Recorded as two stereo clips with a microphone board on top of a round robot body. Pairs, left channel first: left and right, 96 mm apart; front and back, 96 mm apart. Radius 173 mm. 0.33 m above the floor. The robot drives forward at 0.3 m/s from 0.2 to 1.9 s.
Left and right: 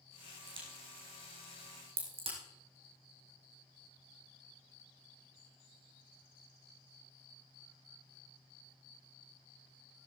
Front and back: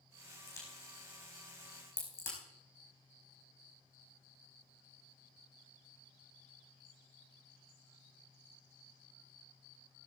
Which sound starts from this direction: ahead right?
A crack, at 0.5 s.